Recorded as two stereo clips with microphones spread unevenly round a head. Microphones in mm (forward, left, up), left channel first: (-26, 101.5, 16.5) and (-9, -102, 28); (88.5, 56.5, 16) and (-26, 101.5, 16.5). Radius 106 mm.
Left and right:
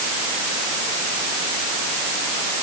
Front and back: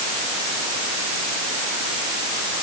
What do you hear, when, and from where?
Only background noise.